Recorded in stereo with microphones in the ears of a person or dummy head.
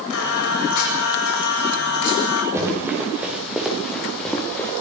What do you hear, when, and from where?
0.1 s singing: 65° left (ahead or behind), 8.5 m
2.5 s running footsteps: 15° right (ahead or behind), 10 m; by 4.7 s 5° left (ahead or behind), 8 m